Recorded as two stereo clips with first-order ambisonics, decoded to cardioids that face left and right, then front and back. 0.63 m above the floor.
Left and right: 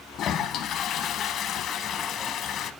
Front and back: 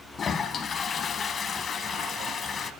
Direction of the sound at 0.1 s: 60° left.